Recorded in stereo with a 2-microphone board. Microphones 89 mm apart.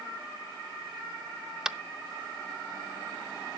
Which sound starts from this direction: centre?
Tapping, at 1.6 s.